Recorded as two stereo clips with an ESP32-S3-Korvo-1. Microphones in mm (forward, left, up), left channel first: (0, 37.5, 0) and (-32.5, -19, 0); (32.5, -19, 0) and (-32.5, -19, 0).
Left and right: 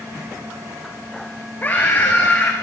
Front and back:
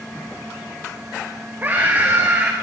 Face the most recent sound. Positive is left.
turn(degrees=120)